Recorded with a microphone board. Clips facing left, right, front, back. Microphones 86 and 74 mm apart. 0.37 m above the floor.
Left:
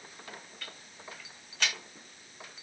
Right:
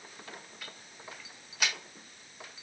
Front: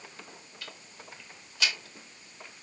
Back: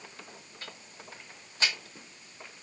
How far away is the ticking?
About 0.9 m.